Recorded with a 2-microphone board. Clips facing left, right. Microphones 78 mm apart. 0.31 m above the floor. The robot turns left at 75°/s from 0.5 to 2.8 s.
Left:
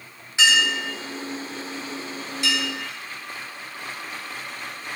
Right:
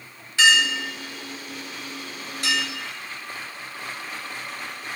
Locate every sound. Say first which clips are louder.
0.4 s a clink: right 1 dB; 20° left (ahead or behind), 1.0 m; by 2.6 s 35° right (ahead or behind), 1.0 m